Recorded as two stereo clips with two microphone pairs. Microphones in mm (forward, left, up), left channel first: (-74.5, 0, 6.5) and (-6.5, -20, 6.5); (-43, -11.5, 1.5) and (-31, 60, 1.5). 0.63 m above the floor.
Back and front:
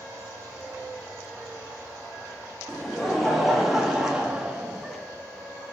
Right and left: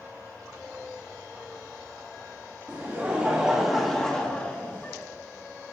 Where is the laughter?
90° left, 1.3 m; by 5.0 s 80° right, 1.3 m.